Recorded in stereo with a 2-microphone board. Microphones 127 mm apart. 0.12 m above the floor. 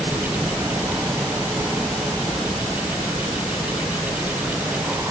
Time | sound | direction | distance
0.0 | a helicopter | 10° right (ahead or behind) | ?